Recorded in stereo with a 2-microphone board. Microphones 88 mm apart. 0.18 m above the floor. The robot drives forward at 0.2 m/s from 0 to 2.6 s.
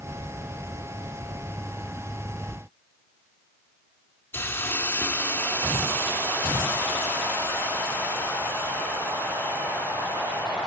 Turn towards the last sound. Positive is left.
turn(degrees=25)  # may be behind; listen again after turning